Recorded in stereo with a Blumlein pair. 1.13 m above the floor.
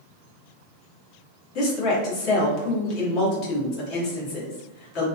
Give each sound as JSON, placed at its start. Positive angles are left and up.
{"t": 1.6, "sound": "a woman speaking", "azimuth_deg": 35, "distance_m": 1.1}